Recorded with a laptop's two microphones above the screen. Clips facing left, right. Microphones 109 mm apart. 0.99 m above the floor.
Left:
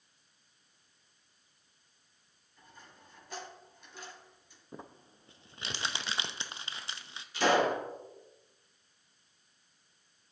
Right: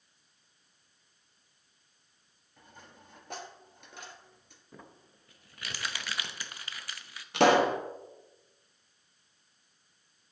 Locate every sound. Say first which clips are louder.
2.6 s a dropped coin: right 2 dB; 60° right (ahead or behind), 2 m
4.7 s crumpling: left 4 dB; 25° left (ahead or behind), 0.5 m
7.3 s a pop: right 4 dB; 70° right (ahead or behind), 1.0 m